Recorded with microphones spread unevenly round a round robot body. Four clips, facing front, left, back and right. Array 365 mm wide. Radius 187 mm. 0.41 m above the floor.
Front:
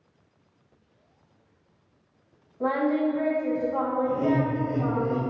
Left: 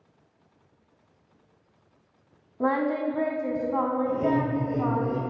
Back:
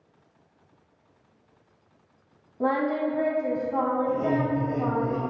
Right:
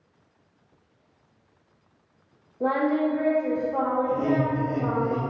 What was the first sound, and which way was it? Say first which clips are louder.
Singing: right 2 dB, front 1 dB; 130° left.